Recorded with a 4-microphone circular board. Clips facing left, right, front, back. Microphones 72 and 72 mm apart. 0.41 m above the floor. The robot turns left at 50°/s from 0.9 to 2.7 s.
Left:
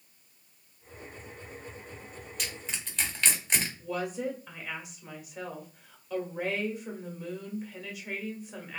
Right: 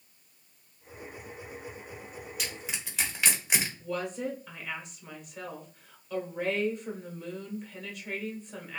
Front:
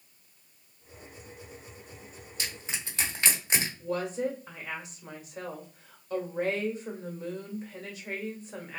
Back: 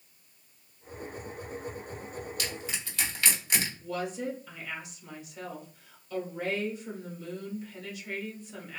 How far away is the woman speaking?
About 1.1 m.